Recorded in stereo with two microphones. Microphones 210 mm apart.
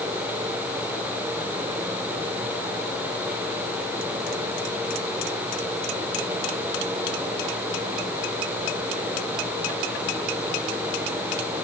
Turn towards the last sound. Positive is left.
No sound to turn to.